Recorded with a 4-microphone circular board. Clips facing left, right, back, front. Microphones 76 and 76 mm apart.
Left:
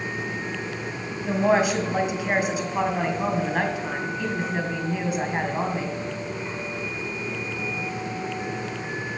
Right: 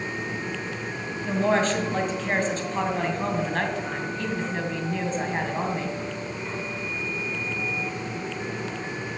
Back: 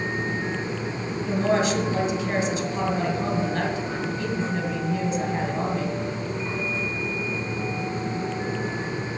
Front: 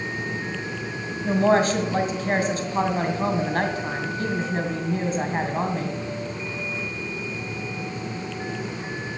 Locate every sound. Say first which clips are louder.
1.2 s a woman speaking: left 2 dB, front 4 dB; 15° left, 2 m